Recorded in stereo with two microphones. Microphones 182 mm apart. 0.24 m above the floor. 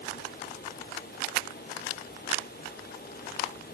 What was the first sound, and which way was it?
Only background noise.